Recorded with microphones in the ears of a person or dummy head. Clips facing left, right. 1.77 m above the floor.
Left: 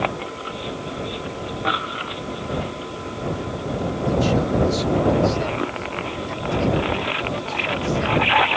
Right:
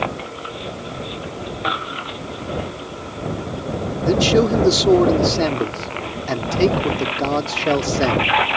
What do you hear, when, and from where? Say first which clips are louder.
4.0 s a man speaking: right 6 dB; 85° right